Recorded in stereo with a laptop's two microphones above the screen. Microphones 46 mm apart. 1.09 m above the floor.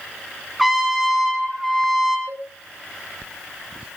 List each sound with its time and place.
0.6 s a trumpet: centre (ahead or behind), 6 m
2.3 s a cowbell: 50° right (ahead or behind), 9.5 m